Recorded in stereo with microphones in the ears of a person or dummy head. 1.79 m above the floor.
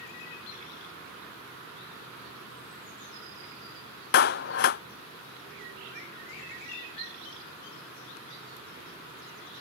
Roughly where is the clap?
Left.